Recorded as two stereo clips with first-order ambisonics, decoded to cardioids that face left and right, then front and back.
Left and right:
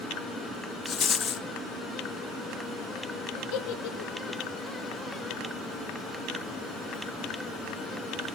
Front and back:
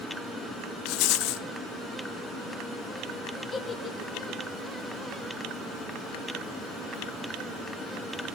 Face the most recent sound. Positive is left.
turn(degrees=75)